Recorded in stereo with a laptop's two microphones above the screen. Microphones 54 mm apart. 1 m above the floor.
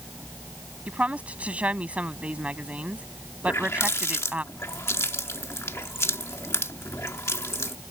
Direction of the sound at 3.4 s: 60° left (ahead or behind).